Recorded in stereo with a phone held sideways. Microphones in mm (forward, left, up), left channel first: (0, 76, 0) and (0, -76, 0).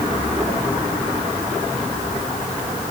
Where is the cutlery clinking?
I don't hear cutlery clinking.